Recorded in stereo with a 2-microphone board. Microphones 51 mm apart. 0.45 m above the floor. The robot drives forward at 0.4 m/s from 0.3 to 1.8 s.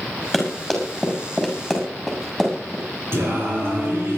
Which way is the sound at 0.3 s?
5° right (ahead or behind).